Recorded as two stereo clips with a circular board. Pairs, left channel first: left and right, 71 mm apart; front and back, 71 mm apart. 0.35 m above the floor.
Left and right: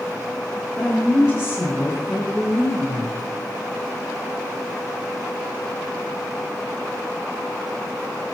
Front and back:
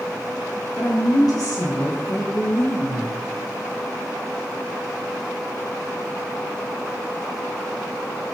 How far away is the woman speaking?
About 4.5 m.